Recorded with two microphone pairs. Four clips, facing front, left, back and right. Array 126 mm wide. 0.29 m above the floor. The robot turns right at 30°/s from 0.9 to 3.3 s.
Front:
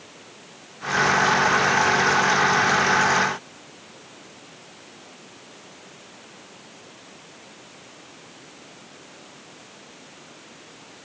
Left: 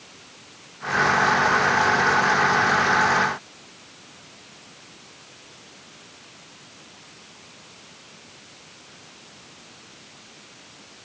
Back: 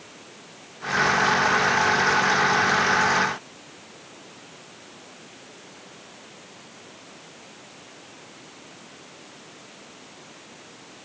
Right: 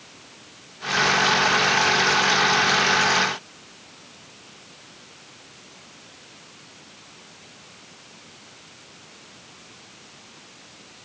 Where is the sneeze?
No sneeze in this recording.